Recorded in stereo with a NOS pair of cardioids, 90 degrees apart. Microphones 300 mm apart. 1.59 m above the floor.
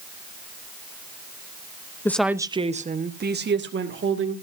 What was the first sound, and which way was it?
A woman speaking, 10° left.